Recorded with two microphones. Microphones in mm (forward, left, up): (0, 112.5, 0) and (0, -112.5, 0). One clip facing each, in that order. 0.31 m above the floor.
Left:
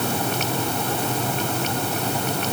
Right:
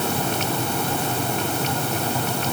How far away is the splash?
No splash in this recording.